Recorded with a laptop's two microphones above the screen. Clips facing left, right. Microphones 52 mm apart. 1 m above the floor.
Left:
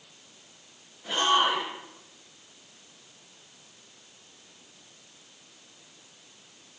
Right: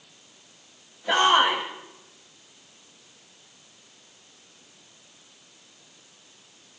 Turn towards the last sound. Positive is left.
turn(degrees=-75)  # may be behind; listen again after turning